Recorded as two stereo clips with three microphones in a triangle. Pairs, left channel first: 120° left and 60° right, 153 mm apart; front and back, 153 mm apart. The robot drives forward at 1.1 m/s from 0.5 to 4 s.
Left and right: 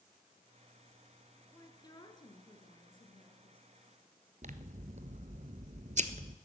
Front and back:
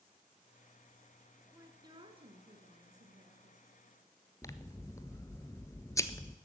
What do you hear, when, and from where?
1.5 s a woman speaking: 140° left, 1.7 m; by 3.7 s 170° left, 3.5 m
4.4 s scissors: 65° right, 0.8 m